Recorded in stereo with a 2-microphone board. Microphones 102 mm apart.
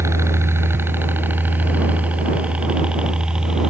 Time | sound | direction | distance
0.0 | a helicopter | 25° right (ahead or behind) | ?